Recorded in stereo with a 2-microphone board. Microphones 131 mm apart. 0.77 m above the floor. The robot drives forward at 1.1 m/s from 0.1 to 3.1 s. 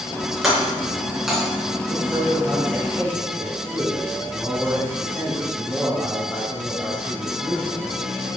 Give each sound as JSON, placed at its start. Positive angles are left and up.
{"t": 0.4, "sound": "breaking glass", "side_deg": -5, "distance_m": 4.0}
{"t": 1.9, "sound": "a man speaking", "side_deg": -5, "distance_m": 4.5}